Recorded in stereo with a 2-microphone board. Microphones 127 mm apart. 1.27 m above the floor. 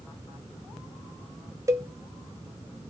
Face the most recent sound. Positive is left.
turn(degrees=-25)  # may be behind; listen again after turning